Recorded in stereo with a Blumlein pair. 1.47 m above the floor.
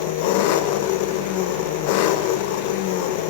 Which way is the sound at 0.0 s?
45° left.